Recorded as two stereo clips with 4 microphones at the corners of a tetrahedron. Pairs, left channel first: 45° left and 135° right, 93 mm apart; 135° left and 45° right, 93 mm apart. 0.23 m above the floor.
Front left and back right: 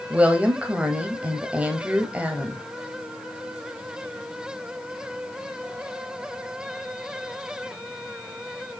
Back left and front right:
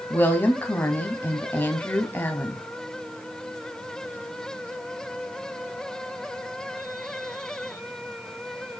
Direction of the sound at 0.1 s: 165° left.